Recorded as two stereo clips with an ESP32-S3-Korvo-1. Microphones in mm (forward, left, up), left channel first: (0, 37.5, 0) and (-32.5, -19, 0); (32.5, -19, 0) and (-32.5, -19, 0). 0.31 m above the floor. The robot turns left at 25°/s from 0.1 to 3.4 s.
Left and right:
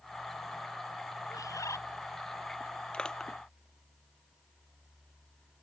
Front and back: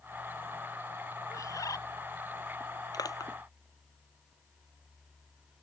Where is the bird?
35° left; by 1.8 s 25° left.